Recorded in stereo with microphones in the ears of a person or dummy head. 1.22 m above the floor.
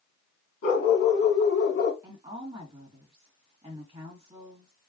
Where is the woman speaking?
25° right (ahead or behind), 1.4 m.